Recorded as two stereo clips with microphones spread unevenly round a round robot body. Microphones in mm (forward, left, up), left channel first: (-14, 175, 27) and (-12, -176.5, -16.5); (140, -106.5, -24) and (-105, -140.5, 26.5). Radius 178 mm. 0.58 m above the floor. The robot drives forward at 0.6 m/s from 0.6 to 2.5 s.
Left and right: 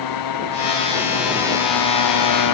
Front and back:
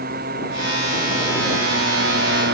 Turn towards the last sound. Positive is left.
turn(degrees=125)